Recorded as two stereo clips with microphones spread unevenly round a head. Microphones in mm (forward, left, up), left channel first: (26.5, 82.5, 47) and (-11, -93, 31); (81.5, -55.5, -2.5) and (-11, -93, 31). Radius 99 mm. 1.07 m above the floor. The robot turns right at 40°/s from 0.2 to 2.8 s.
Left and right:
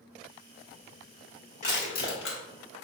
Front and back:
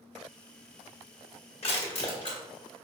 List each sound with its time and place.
1.6 s crushing: 25° left, 1.6 m; by 2.4 s 60° left, 1.6 m